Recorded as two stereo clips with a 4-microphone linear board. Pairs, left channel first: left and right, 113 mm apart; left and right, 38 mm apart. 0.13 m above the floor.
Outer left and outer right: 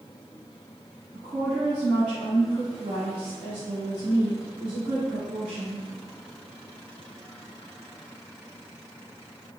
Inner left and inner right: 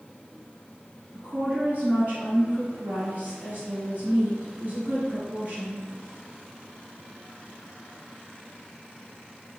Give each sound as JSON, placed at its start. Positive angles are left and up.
{"t": 1.1, "sound": "a woman speaking", "side_deg": -40, "distance_m": 1.8}